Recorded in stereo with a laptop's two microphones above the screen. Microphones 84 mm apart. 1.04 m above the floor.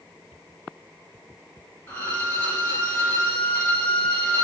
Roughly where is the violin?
Left.